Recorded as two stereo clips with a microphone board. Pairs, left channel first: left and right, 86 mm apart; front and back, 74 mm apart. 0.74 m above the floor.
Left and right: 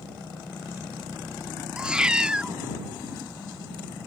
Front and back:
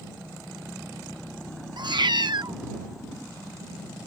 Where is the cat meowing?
170° right.